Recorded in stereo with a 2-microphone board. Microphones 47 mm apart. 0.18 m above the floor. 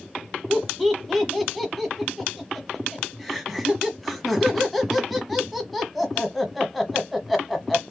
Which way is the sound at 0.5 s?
Centre (ahead or behind).